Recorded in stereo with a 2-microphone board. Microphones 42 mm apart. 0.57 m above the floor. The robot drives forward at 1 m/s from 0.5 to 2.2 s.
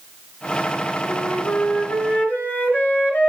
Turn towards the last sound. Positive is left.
turn(degrees=45)  # may be behind; listen again after turning